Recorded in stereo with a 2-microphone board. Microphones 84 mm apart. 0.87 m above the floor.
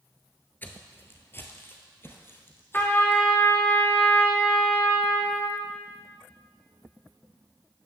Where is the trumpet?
25° left (ahead or behind), 1.4 m.